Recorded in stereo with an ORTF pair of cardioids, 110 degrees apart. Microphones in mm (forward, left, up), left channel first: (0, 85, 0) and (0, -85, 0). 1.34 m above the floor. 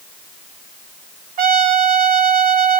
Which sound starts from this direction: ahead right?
A trumpet, at 1.4 s.